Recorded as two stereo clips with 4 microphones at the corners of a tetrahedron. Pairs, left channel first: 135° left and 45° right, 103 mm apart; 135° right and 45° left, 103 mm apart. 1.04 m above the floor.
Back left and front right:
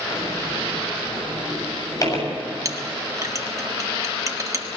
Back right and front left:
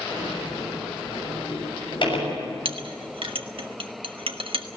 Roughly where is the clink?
Ahead.